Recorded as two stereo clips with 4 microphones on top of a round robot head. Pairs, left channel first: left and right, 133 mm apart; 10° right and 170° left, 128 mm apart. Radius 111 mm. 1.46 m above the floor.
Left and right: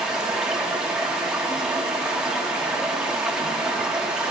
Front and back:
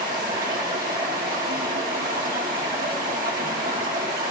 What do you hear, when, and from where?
0.0 s running water: 175° right, 1.5 m